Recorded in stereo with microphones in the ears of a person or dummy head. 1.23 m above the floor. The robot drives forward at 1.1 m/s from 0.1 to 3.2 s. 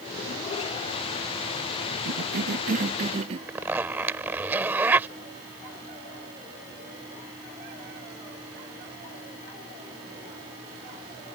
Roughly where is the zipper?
Centre.